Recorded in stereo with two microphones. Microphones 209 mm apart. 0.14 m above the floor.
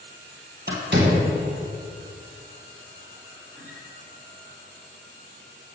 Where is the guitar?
10° right (ahead or behind), 1.2 m.